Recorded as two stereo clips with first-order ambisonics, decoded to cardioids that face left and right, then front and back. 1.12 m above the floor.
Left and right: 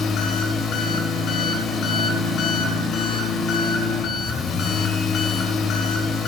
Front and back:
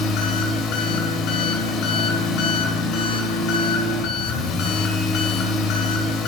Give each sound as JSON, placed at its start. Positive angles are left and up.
{"t": 0.0, "sound": "an engine running", "azimuth_deg": 40, "distance_m": 1.7}